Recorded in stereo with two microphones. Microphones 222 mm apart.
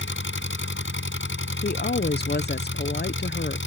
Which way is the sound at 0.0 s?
60° left (ahead or behind).